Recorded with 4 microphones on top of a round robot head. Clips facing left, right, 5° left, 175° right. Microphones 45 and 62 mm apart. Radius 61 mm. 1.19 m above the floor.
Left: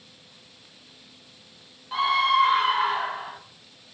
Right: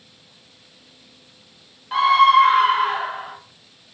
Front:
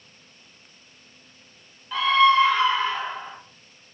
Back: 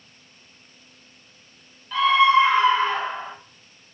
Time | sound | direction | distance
1.9 | a scream | 80° right | 0.6 m